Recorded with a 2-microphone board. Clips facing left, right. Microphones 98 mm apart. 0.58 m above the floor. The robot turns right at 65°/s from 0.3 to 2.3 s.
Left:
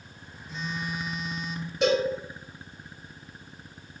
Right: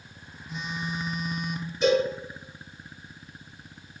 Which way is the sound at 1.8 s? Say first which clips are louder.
Right 2 dB; 75° left (ahead or behind).